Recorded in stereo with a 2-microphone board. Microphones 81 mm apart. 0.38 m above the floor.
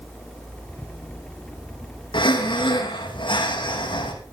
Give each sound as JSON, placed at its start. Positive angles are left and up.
{"t": 2.1, "sound": "breathing", "side_deg": 80, "distance_m": 4.0}